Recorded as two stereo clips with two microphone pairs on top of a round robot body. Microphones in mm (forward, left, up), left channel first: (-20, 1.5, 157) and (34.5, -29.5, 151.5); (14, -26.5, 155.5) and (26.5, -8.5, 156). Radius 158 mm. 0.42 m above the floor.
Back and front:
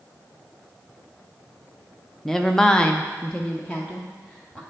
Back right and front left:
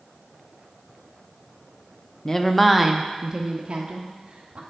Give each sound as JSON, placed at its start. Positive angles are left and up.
{"t": 2.2, "sound": "a woman speaking", "azimuth_deg": -120, "distance_m": 0.8}